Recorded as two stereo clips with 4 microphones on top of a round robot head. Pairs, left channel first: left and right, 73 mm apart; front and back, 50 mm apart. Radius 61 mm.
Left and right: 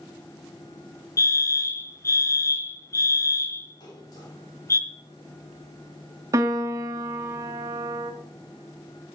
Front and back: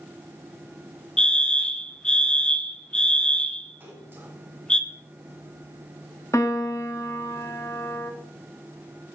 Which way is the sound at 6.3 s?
60° right.